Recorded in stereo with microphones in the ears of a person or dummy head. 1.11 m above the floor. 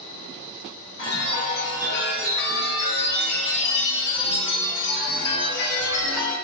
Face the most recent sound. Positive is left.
turn(degrees=55)  # may be behind; listen again after turning